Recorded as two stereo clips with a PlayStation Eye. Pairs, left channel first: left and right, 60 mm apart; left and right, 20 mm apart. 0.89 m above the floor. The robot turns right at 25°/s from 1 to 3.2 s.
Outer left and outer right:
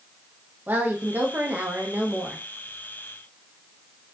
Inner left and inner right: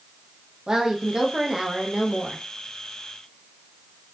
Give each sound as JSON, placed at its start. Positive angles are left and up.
{"t": 0.7, "sound": "a woman speaking", "azimuth_deg": -90, "distance_m": 0.6}